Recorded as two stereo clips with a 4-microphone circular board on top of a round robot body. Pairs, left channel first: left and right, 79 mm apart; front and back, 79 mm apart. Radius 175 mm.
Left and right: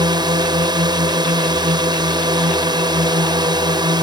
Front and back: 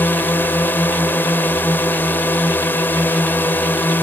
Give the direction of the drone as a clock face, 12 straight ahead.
2 o'clock.